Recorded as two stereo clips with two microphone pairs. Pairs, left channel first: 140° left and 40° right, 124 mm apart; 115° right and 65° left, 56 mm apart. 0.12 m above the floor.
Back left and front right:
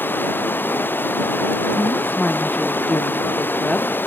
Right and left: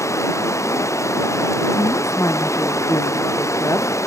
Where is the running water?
145° right.